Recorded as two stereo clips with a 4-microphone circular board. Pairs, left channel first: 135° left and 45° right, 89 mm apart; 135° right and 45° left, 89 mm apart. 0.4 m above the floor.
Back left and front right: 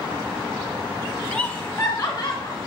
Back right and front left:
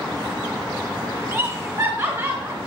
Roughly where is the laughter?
Left.